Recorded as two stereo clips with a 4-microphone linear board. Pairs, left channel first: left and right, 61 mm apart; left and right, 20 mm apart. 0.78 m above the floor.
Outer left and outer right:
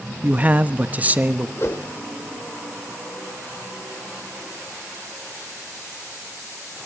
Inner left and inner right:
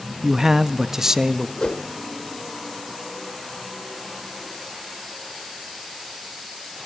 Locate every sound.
0.2 s a man speaking: 25° right (ahead or behind), 1.1 m
1.6 s a whoosh: 45° left (ahead or behind), 1.7 m